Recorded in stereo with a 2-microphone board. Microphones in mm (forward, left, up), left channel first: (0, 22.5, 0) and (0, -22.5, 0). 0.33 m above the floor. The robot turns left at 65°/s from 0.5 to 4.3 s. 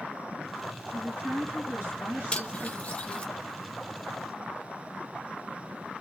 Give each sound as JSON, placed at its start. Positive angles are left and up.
{"t": 0.9, "sound": "a woman speaking", "azimuth_deg": -30, "distance_m": 2.5}
{"t": 2.3, "sound": "cutlery clinking", "side_deg": 25, "distance_m": 0.6}